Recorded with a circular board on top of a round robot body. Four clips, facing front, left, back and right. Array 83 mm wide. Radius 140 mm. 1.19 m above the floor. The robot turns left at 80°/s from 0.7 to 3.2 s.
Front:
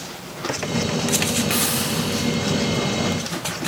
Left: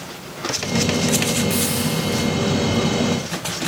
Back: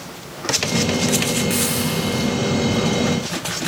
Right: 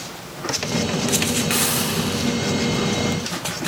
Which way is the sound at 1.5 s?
65° right.